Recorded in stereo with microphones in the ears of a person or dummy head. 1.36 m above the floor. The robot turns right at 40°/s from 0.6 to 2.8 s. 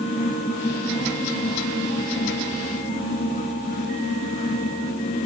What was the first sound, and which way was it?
Only background noise.